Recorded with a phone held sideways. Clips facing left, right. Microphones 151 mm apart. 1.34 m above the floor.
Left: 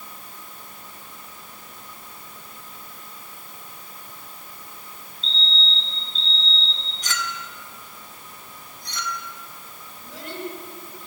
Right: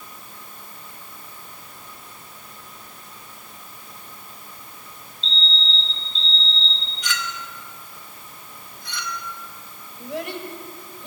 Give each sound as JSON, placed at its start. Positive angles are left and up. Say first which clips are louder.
{"t": 5.2, "sound": "a fire alarm", "louder": "right 1 dB", "side_deg": 45, "distance_m": 4.5}
{"t": 7.0, "sound": "a clink", "louder": "even", "side_deg": 40, "distance_m": 1.9}
{"t": 10.0, "sound": "a child speaking", "louder": "right 4 dB", "side_deg": -80, "distance_m": 4.5}